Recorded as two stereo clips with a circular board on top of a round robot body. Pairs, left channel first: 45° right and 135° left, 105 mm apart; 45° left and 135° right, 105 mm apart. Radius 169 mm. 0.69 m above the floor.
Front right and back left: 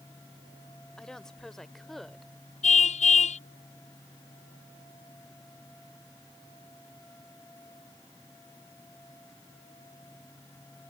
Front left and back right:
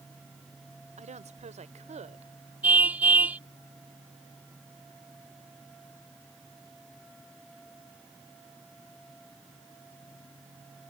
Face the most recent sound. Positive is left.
turn(degrees=-60)